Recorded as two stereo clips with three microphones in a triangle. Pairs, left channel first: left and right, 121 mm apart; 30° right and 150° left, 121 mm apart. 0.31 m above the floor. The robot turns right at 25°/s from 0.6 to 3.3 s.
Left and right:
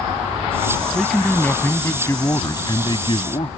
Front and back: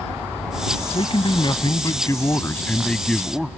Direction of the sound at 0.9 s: Straight ahead.